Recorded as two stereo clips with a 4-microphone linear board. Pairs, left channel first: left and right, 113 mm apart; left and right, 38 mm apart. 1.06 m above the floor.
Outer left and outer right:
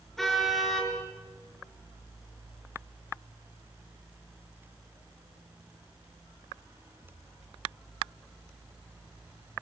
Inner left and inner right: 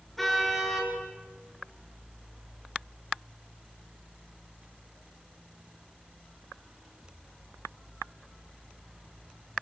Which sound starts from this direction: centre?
A car horn, at 0.2 s.